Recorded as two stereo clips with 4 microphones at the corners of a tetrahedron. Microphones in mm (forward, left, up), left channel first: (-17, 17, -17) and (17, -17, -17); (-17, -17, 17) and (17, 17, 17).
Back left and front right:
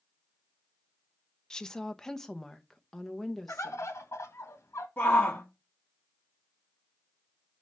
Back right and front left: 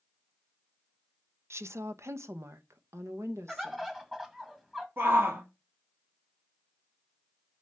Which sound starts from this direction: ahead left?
A woman speaking, at 1.5 s.